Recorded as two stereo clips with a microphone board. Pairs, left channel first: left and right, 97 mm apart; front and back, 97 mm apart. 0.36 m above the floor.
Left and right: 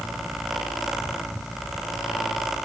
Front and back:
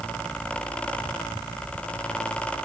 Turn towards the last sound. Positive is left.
No sound to turn to.